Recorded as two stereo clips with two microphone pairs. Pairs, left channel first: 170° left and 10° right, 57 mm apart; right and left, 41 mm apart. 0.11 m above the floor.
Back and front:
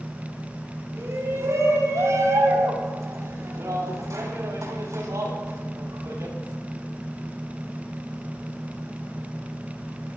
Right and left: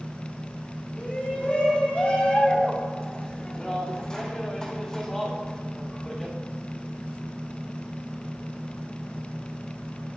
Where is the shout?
35° right, 6.5 m; by 6.3 s 10° right, 7.5 m.